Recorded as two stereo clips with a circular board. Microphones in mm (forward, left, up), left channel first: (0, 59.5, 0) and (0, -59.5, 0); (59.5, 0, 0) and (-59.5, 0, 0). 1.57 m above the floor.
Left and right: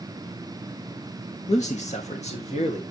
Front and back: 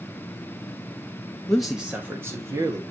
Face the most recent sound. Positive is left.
turn(degrees=120)